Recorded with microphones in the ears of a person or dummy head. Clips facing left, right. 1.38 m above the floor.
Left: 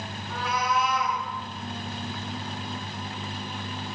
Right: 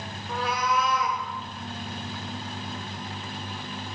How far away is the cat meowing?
About 0.9 m.